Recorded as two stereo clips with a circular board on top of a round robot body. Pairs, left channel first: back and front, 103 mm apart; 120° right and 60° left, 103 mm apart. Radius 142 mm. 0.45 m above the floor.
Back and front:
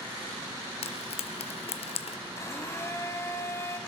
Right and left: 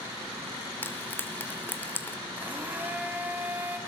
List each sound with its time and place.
0.8 s frying: 170° left, 0.6 m
2.4 s a blender: 125° left, 1.3 m